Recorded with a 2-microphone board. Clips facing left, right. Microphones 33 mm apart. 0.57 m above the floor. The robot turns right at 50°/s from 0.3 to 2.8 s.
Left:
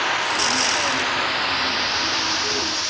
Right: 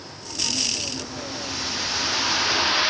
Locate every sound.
0.0 s running water: 80° left; by 2.9 s 155° right